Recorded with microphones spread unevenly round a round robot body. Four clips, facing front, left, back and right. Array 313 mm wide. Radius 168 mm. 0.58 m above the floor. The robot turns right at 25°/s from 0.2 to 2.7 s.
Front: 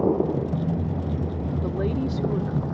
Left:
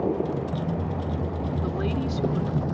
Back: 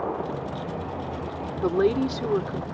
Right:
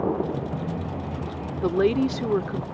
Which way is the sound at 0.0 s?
10° right.